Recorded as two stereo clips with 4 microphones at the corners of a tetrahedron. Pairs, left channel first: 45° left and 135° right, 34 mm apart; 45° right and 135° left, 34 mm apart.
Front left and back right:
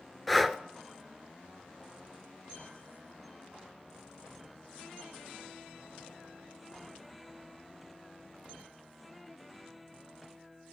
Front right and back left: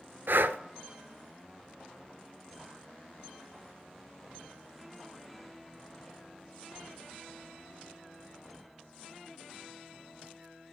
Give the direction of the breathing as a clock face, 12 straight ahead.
8 o'clock.